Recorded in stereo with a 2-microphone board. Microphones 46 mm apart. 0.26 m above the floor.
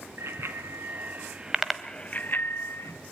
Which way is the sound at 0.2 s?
60° right (ahead or behind).